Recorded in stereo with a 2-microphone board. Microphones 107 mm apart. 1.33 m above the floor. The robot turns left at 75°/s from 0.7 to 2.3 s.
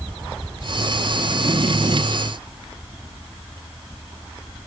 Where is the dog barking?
No dog barking in this recording.